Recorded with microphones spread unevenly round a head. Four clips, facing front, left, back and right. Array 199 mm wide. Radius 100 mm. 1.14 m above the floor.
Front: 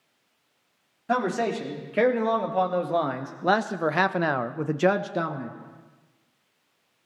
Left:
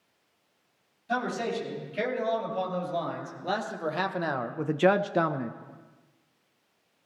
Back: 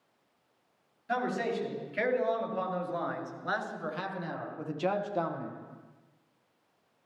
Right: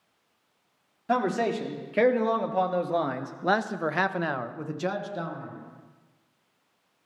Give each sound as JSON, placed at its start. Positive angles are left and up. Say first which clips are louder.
{"t": 1.1, "sound": "a man speaking", "louder": "right 4 dB, front 6 dB", "azimuth_deg": -50, "distance_m": 2.5}